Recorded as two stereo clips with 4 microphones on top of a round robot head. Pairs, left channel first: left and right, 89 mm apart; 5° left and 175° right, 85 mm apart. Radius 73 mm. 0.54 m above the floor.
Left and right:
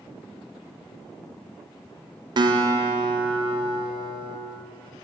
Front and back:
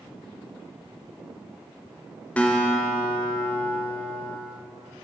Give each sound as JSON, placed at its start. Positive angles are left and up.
{"t": 2.4, "sound": "a guitar", "azimuth_deg": -65, "distance_m": 0.5}